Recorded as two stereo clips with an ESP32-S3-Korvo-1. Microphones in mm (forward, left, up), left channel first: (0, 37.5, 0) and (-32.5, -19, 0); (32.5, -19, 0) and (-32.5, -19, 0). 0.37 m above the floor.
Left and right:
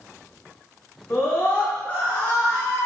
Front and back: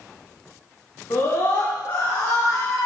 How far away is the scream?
About 3.5 m.